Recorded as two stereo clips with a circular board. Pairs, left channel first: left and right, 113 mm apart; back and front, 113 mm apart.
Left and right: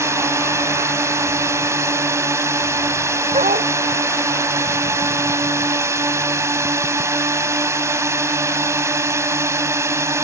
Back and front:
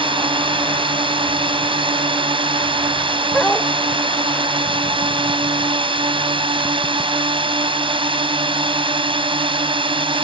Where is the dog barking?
95° right.